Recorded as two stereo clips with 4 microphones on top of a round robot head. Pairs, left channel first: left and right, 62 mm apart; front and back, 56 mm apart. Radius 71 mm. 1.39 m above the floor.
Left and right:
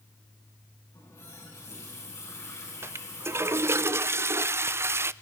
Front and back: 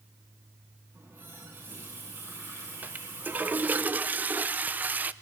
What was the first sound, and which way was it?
A running tap, 130° left.